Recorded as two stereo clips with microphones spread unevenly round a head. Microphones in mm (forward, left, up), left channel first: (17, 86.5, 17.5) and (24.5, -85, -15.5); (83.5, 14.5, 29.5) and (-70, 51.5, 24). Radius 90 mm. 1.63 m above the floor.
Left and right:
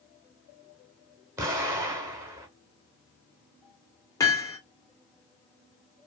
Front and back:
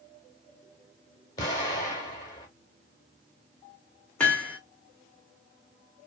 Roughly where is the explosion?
Ahead.